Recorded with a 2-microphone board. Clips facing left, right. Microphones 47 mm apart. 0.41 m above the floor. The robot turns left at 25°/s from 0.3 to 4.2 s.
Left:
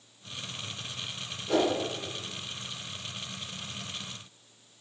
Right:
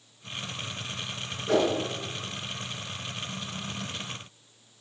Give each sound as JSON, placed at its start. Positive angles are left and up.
{"t": 1.5, "sound": "a whoosh", "side_deg": -55, "distance_m": 3.5}